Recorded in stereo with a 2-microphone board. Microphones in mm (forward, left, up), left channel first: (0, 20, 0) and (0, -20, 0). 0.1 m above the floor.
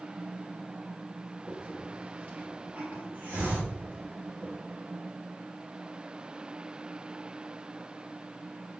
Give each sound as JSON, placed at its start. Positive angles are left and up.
{"t": 1.5, "sound": "a hiss", "side_deg": -45, "distance_m": 2.5}